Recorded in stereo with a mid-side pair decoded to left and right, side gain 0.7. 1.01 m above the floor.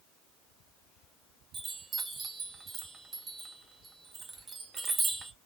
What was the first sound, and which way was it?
A chime, 25° right.